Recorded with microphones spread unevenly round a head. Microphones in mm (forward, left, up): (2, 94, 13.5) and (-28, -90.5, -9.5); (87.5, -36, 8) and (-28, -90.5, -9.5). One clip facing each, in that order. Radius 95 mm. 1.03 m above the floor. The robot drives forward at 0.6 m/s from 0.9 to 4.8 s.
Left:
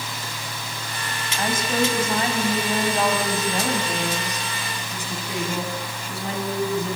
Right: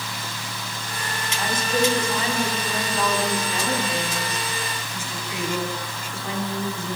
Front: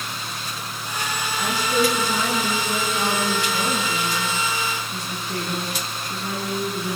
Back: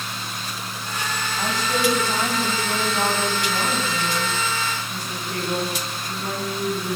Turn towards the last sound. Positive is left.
turn(degrees=135)